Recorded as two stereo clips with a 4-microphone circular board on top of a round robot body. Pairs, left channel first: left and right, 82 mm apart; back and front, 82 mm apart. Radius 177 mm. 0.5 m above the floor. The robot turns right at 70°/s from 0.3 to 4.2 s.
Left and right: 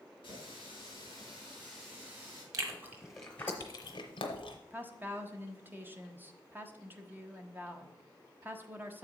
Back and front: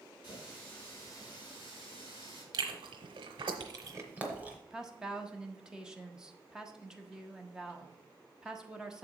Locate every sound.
0.2 s a running tap: 70° left, 4.5 m; by 2.4 s 140° right, 4.5 m
2.5 s chewing: 40° right, 0.9 m; by 4.6 s 75° left, 0.9 m
4.7 s a woman speaking: 70° right, 1.2 m